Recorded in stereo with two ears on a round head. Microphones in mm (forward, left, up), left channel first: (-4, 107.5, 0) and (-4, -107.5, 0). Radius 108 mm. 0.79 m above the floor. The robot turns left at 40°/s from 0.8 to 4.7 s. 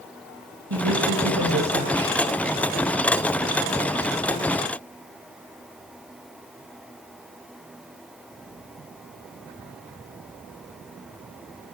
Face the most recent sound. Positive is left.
turn(degrees=125)